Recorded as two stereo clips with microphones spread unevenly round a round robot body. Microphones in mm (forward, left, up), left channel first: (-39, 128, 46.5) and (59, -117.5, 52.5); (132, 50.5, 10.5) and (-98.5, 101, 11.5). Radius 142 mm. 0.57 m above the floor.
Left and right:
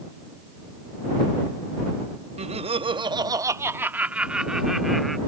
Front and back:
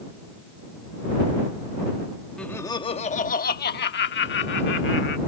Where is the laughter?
95° right; by 5.2 s 20° left.